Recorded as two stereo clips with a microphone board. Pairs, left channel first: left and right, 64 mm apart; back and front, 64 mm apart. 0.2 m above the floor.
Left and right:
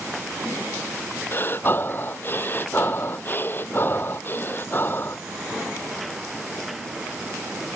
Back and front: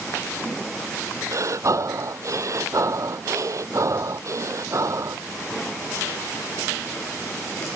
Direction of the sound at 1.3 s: 35° left.